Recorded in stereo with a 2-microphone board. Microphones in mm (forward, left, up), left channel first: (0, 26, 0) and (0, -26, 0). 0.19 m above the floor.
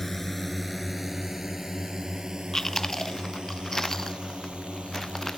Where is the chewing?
10° left (ahead or behind).